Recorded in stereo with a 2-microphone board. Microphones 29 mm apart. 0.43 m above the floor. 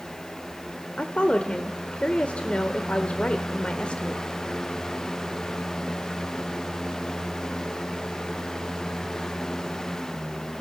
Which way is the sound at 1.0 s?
40° left (ahead or behind).